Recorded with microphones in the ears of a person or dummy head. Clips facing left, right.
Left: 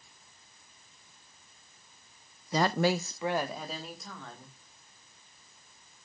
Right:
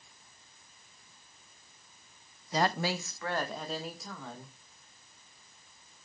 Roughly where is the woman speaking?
Left.